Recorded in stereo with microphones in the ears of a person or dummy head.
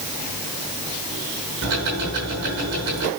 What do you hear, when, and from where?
1.6 s ticking: 55° right (ahead or behind), 6 m